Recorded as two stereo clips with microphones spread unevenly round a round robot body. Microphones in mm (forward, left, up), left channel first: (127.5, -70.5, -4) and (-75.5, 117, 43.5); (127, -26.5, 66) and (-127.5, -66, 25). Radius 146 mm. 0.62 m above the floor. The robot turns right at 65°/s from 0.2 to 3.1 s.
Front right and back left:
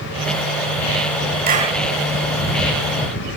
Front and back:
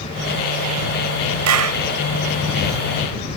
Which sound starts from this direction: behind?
A clap, at 1.5 s.